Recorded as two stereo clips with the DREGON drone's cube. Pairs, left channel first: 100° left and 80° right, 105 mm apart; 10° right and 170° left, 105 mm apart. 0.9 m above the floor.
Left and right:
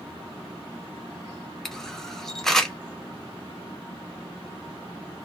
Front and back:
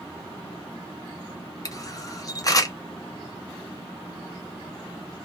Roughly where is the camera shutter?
Ahead.